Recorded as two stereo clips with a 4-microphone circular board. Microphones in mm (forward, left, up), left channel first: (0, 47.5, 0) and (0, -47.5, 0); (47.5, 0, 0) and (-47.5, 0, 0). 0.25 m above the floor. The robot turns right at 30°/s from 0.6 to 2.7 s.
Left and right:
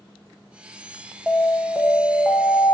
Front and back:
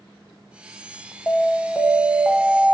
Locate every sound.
1.3 s an alarm: 25° left, 0.6 m; by 2.7 s 70° left, 0.6 m